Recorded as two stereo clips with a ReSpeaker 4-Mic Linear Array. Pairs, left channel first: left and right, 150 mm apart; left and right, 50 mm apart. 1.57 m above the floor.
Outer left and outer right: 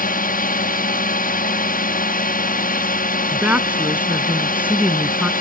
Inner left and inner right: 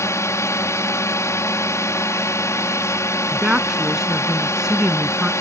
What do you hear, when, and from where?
0.0 s a drone: 70° left (ahead or behind)
3.3 s a woman speaking: 10° right (ahead or behind)